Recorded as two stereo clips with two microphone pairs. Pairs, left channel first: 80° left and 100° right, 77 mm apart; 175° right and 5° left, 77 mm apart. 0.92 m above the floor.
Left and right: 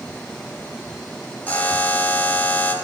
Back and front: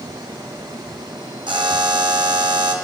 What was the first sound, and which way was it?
A buzzer, 10° left.